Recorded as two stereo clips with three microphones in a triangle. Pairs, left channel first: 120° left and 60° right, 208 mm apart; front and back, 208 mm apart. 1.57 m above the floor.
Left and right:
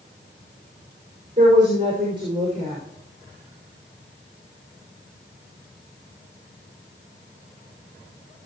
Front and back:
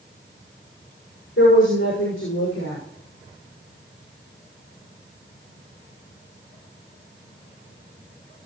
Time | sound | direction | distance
1.4 | a woman speaking | 5° left | 6 m